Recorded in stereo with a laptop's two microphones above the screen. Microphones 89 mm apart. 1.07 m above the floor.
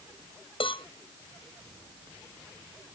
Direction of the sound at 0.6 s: 85° left.